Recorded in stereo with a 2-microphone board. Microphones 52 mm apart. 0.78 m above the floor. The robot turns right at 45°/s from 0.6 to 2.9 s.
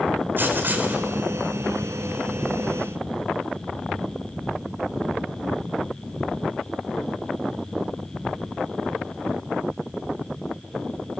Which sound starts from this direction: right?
Writing, at 0.4 s.